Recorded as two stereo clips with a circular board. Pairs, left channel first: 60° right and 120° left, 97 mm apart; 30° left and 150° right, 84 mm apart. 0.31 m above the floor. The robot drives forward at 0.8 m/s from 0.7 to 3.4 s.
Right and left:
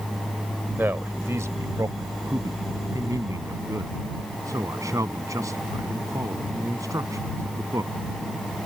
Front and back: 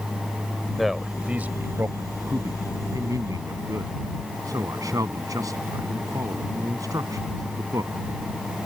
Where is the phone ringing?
I don't hear a phone ringing.